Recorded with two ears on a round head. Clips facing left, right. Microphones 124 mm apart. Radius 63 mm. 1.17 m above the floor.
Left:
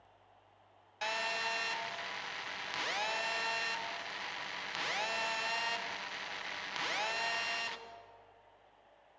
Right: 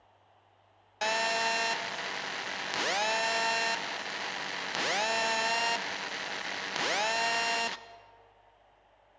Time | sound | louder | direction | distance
1.0 | a phone buzzing | right 8 dB | 55° right (ahead or behind) | 0.8 m